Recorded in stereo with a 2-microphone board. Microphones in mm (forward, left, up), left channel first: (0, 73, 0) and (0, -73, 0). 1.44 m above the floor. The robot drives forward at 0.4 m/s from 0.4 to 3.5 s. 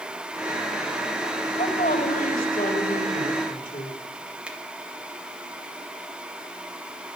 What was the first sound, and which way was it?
A woman speaking, 70° left (ahead or behind).